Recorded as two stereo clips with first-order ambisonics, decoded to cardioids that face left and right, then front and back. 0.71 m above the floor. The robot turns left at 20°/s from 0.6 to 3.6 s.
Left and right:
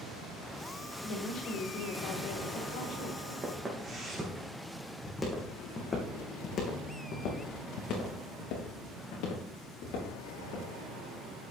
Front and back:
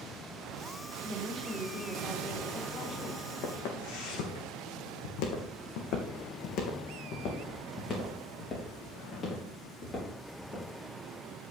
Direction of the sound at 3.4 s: 20° right.